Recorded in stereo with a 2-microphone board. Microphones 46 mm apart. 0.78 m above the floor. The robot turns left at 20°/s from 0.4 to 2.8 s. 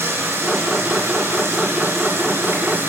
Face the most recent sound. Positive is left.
turn(degrees=-115)